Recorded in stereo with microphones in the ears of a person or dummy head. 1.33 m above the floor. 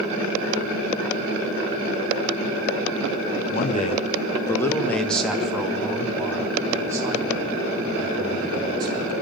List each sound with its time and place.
3.5 s a man speaking: 50° left (ahead or behind), 1.5 m; by 9.1 s 25° right (ahead or behind), 6 m